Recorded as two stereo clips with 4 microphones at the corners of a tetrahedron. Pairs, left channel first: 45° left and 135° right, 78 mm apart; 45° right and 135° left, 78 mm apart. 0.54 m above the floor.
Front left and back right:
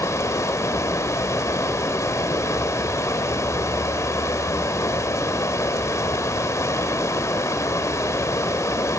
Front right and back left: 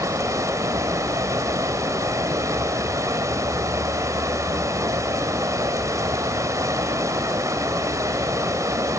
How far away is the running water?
About 1.8 m.